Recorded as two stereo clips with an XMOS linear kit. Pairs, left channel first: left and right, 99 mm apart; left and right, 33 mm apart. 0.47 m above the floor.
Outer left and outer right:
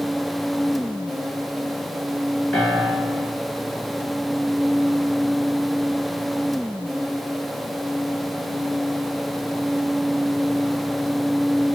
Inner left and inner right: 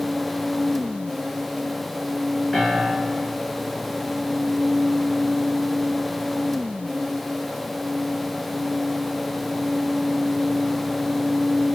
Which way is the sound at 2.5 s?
5° left (ahead or behind).